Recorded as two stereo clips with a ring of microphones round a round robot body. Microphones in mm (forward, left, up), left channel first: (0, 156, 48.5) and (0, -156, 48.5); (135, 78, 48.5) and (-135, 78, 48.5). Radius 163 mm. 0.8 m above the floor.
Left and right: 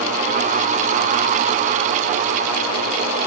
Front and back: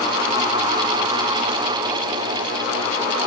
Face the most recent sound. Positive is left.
No sound to turn to.